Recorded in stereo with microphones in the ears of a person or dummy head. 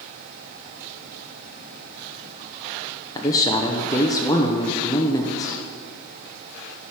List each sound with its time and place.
3.1 s a man speaking: 20° left (ahead or behind), 0.6 m